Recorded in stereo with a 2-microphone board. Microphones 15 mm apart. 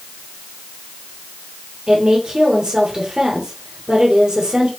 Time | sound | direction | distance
1.9 | a woman speaking | 60° right (ahead or behind) | 3 m